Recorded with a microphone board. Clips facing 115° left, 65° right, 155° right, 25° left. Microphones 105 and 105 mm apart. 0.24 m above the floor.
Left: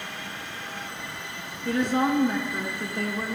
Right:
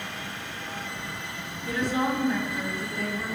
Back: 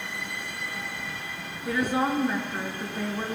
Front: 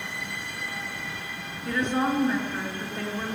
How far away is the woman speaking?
About 3 m.